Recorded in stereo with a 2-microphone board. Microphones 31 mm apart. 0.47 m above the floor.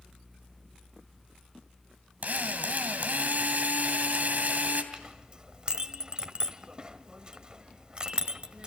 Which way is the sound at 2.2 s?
60° right (ahead or behind).